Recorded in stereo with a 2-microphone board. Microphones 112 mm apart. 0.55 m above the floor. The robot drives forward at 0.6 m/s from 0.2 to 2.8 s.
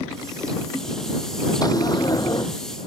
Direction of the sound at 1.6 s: 35° left (ahead or behind).